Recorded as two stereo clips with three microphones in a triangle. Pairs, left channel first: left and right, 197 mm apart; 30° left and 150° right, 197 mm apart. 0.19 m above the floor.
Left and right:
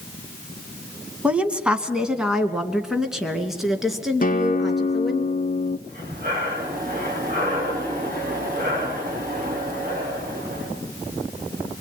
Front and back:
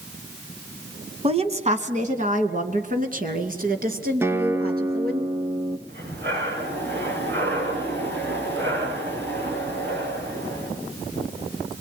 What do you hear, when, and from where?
1.2 s a woman speaking: 170° right, 1.7 m; by 5.2 s straight behind, 3.5 m
4.2 s a guitar: 135° left, 0.5 m
5.9 s breathing: 135° right, 9 m